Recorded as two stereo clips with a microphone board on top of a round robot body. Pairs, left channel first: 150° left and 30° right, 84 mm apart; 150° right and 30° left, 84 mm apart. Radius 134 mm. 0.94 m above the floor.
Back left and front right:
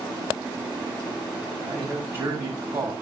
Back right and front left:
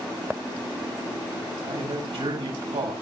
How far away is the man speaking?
About 7 m.